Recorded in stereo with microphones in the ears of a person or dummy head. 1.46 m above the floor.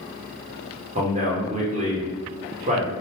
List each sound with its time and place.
0.9 s a man speaking: 35° right (ahead or behind), 1.2 m